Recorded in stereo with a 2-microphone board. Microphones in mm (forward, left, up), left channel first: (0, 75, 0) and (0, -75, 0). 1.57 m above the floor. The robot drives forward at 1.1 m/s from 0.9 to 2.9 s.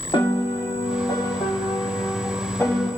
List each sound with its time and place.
0.1 s a piano: 35° left (ahead or behind), 1.6 m; by 2.9 s 15° left (ahead or behind), 3.5 m